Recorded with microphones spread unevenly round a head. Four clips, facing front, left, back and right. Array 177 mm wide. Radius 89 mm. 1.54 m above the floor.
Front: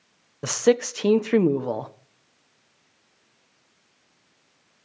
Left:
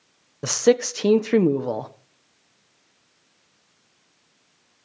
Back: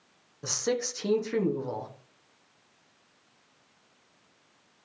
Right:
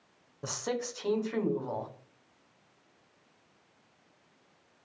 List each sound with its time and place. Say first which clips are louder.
0.4 s a man speaking: left 16 dB, front 10 dB; 55° left, 1.3 m